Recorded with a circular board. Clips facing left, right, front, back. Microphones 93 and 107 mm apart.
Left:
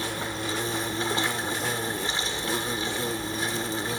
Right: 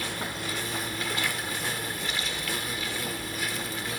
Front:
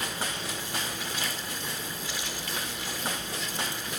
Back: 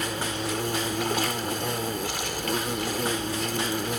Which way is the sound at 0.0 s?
150° left.